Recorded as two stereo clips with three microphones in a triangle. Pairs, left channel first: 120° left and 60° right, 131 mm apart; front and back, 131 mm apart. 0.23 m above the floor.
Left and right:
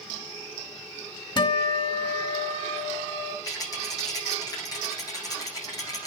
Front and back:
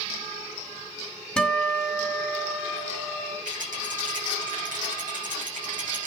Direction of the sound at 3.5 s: Straight behind.